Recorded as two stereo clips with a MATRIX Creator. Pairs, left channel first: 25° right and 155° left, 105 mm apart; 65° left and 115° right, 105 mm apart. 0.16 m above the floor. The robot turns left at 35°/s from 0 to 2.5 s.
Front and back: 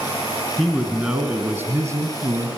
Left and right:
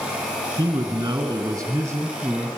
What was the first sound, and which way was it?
A man speaking, 115° right.